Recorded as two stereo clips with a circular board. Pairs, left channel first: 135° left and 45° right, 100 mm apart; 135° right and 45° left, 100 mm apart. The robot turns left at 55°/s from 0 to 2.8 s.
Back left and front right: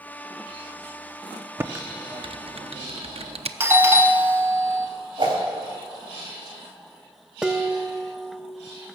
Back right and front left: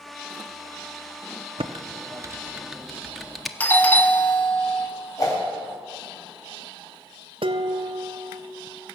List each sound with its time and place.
1.6 s typing on a keyboard: 20° left, 0.6 m; by 3.5 s 45° right, 0.6 m
3.6 s a doorbell: 85° right, 0.9 m
5.2 s a whoosh: 80° right, 4 m
7.4 s dishes clattering: 35° left, 0.6 m